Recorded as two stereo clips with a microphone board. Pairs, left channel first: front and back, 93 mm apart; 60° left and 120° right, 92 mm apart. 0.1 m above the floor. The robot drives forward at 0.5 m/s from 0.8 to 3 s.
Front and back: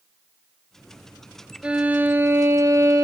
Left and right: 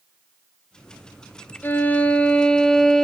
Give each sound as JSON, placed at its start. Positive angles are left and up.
{"t": 1.6, "sound": "a violin", "azimuth_deg": 110, "distance_m": 1.1}